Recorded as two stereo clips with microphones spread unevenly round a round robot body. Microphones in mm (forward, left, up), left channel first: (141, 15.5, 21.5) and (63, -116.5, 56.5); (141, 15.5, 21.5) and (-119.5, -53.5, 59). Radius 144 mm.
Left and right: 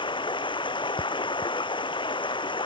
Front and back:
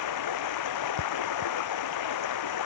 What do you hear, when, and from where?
0.0 s running water: straight ahead